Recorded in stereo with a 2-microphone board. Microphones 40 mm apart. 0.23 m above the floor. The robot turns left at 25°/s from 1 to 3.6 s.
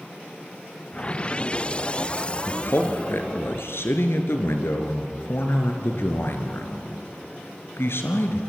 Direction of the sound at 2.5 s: 60° left (ahead or behind).